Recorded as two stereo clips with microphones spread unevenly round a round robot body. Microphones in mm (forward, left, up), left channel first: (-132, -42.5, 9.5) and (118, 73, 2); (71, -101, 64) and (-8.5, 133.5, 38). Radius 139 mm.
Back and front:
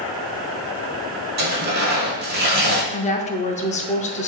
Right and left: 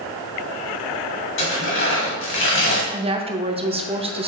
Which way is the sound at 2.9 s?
150° left.